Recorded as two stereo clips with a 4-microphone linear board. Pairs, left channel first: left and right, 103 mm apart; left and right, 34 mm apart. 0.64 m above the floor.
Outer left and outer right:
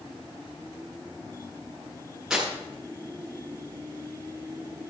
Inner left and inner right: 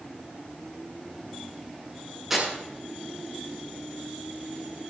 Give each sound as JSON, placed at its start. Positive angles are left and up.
{"t": 2.3, "sound": "tearing paper", "side_deg": -5, "distance_m": 7.5}